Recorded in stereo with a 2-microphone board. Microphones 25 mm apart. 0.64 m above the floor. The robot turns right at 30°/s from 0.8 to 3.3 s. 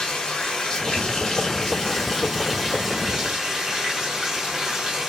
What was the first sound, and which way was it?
Running water, 135° left.